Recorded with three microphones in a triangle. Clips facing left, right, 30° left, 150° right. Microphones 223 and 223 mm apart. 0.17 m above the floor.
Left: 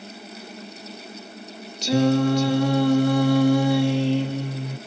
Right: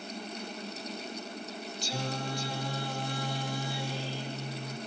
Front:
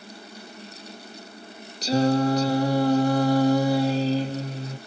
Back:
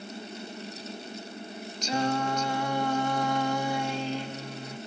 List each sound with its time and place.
1.8 s singing: 80° left, 0.9 m